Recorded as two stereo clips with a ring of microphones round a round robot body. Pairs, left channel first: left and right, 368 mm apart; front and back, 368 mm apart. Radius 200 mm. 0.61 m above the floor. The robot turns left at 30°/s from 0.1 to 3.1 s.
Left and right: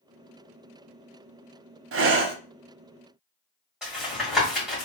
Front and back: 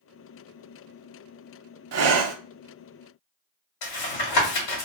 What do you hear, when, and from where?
1.9 s breathing: 135° right, 0.6 m; by 2.4 s 150° right, 0.6 m
3.8 s tapping: straight ahead, 1.7 m